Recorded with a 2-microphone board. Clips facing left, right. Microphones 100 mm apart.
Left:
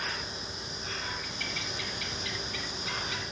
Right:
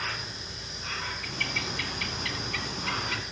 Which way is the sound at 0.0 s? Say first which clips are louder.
Even; 60° right (ahead or behind).